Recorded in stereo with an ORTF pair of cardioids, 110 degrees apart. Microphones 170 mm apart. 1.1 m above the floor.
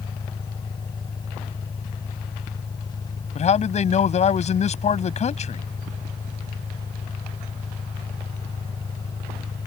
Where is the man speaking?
40° left.